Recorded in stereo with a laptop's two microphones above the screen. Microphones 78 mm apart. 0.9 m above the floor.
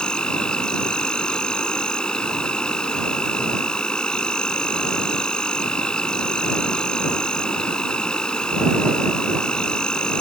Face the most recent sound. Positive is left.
turn(degrees=10)  # may be behind; listen again after turning